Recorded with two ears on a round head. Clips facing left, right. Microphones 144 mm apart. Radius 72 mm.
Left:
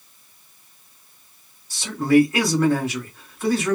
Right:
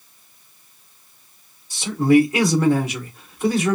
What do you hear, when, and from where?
1.7 s a man speaking: 15° right (ahead or behind), 1.1 m